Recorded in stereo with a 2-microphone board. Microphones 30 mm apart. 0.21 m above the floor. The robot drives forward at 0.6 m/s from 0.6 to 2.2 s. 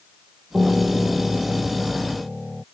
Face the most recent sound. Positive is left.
turn(degrees=-5)  # may be behind; listen again after turning